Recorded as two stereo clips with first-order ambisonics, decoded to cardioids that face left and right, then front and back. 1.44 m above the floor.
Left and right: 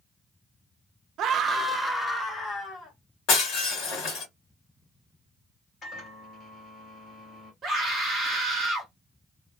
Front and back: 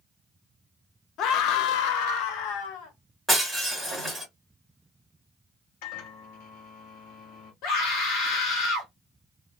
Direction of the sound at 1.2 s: 45° right.